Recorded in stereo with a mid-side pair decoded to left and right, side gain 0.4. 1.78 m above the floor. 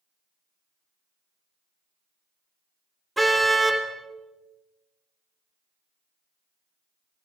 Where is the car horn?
10° right, 3.5 m.